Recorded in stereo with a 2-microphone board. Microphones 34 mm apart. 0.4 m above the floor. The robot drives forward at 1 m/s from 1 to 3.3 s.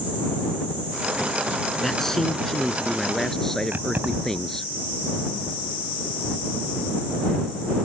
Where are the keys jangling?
70° right (ahead or behind).